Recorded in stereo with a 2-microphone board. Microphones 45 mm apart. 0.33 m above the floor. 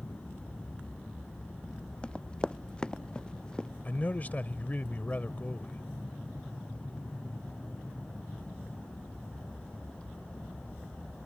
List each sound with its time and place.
0.0 s an aircraft: 70° left (ahead or behind); by 11.3 s 65° left (ahead or behind)
2.0 s running footsteps: 20° left (ahead or behind); by 3.7 s 15° left (ahead or behind)
3.9 s a man speaking: 35° left (ahead or behind)